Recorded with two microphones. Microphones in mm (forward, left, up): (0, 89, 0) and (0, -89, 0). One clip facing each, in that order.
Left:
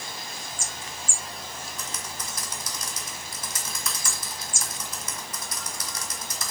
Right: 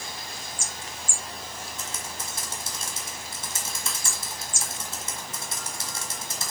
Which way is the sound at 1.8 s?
25° right (ahead or behind).